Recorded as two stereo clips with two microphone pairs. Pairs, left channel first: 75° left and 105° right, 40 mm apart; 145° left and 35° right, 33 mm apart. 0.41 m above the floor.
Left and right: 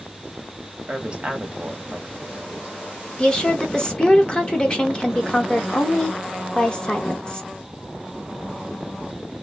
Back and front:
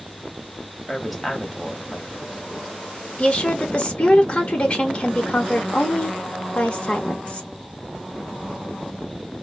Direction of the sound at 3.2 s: 120° left.